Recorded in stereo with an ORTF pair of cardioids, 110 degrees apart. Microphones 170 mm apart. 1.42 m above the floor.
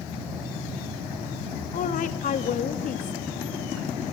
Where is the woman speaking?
55° left, 2.5 m.